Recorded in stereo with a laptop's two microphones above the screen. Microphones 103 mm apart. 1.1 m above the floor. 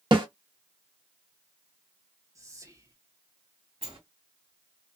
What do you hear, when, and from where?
0.1 s a snare drum: 50° right (ahead or behind), 0.9 m
2.4 s whispering: 30° right (ahead or behind), 0.7 m
3.8 s a sliding door: 65° right (ahead or behind), 1.6 m